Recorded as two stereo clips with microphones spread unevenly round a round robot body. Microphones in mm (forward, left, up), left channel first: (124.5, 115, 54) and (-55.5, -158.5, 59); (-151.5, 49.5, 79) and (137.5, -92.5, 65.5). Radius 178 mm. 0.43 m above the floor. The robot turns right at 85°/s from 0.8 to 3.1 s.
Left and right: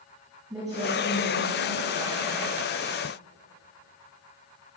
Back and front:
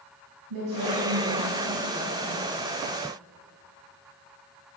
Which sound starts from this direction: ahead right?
A woman speaking, at 0.5 s.